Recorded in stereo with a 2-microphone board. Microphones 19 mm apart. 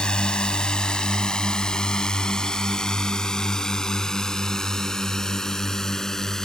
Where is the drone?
55° left (ahead or behind); by 6.5 s 30° left (ahead or behind).